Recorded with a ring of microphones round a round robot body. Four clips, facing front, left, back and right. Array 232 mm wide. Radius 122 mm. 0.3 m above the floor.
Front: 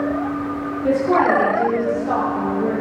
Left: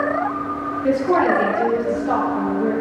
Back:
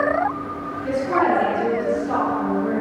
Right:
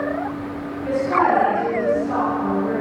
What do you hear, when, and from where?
0.8 s a woman speaking: 50° left, 9 m; by 2.7 s 45° left, 10 m